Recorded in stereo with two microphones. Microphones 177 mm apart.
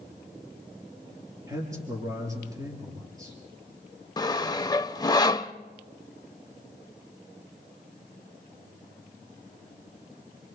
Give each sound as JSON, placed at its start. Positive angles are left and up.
{"t": 1.5, "sound": "a man speaking", "side_deg": -20, "distance_m": 5.5}
{"t": 4.2, "sound": "sawing", "side_deg": 25, "distance_m": 0.5}